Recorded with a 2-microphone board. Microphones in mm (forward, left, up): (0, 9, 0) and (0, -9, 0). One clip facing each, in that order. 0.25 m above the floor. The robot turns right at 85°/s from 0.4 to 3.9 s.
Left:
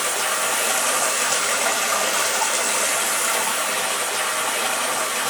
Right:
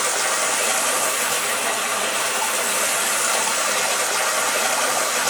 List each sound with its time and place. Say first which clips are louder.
0.0 s running water: right 1 dB; 40° right, 1.4 m; by 5.3 s 100° right, 1.4 m